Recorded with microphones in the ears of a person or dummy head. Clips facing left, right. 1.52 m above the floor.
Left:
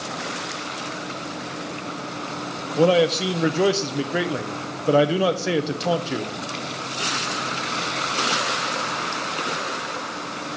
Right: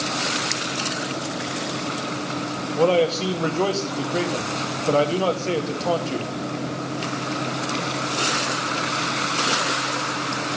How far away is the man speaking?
About 0.6 m.